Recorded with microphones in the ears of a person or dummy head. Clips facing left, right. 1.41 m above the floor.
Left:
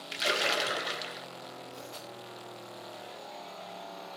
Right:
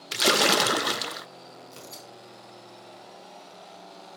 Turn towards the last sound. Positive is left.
turn(degrees=-65)  # may be behind; listen again after turning